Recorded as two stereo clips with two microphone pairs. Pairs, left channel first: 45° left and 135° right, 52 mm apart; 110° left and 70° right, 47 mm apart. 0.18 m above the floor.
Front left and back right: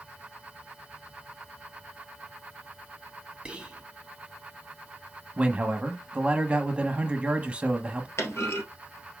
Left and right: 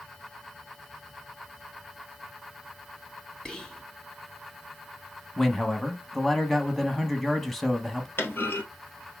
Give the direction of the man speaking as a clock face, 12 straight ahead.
6 o'clock.